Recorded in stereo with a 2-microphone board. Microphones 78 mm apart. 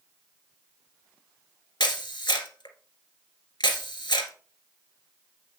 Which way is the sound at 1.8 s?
75° left (ahead or behind).